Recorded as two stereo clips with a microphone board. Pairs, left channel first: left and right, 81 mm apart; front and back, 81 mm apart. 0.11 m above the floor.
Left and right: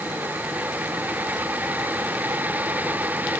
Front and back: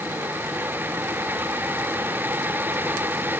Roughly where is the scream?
I don't hear a scream.